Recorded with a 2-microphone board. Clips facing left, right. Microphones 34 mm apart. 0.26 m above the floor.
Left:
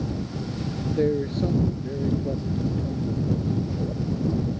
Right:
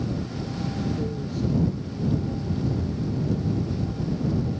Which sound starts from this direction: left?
A man speaking, at 1.0 s.